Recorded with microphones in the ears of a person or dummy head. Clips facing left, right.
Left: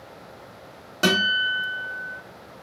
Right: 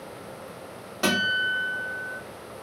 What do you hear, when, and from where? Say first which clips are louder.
1.0 s a guitar: left 3 dB; 25° left (ahead or behind), 1.1 m